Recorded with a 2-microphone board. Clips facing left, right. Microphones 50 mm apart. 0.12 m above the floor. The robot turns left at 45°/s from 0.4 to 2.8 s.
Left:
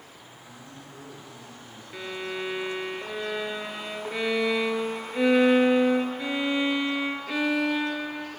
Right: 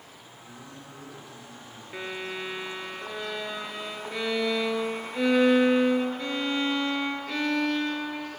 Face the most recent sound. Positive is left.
turn(degrees=165)